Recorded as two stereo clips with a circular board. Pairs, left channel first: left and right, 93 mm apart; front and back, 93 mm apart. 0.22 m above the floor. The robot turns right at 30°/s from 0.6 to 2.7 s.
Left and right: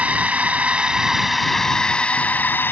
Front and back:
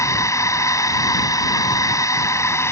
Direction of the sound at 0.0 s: 25° right.